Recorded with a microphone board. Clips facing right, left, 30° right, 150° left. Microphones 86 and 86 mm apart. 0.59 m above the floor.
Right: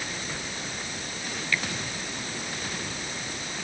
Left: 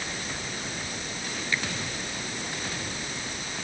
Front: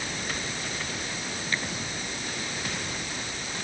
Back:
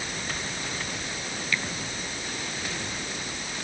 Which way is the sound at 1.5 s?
25° left.